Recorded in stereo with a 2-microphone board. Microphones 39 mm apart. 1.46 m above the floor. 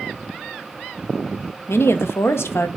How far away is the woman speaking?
About 1.1 m.